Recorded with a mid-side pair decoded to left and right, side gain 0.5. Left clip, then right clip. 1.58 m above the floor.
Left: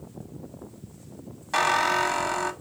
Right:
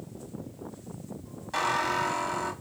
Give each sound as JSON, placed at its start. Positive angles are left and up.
{"t": 1.5, "sound": "a squeak", "azimuth_deg": 50, "distance_m": 1.6}